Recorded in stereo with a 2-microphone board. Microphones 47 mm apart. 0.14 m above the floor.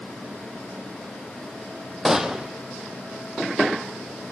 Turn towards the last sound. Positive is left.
turn(degrees=-10)  # may be behind; listen again after turning